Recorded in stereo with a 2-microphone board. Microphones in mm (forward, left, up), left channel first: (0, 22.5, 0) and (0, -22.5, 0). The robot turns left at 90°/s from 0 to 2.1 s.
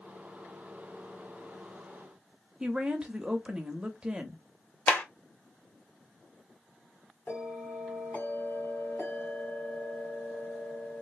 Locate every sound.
2.6 s a woman speaking: 25° right (ahead or behind), 1.0 m
4.9 s a clap: 45° left (ahead or behind), 1.1 m
7.3 s a bell: 60° left (ahead or behind), 2.5 m